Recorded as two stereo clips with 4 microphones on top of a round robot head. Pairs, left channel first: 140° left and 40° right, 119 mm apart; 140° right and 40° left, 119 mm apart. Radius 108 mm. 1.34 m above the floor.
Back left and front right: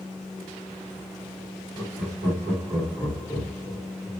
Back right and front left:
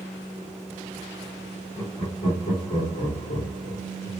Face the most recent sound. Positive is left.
turn(degrees=-115)